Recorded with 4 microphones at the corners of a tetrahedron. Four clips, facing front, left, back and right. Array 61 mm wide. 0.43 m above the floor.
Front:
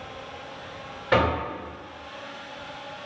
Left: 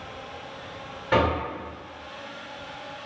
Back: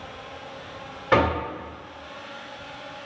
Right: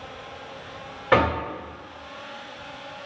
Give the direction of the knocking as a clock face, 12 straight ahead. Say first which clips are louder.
Right 2 dB, back 1 dB; 4 o'clock.